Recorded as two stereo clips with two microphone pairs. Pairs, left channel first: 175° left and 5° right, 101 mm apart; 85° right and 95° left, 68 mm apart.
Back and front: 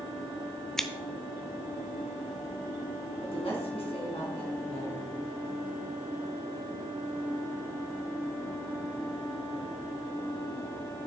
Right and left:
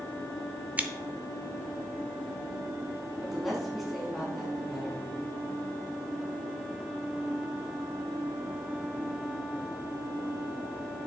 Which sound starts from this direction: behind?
A woman speaking, at 3.2 s.